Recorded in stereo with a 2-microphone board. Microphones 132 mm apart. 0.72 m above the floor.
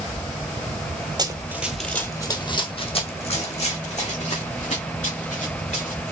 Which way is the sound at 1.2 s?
30° right (ahead or behind).